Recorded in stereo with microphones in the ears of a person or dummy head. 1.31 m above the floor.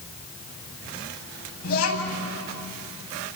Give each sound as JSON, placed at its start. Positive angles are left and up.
{"t": 1.6, "sound": "a child speaking", "side_deg": 50, "distance_m": 7.5}